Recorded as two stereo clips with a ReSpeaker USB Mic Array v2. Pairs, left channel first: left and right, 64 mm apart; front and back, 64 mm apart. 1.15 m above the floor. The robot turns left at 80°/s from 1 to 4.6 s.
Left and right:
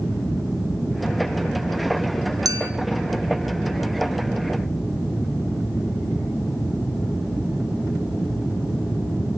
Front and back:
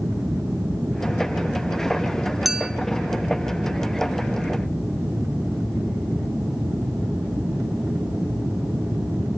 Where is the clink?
90° right, 0.6 m; by 2.7 s 115° right, 0.6 m.